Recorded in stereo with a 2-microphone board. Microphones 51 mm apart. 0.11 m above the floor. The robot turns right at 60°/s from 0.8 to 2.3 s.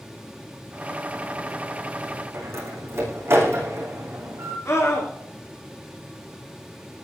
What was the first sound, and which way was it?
A door slam, 55° right (ahead or behind).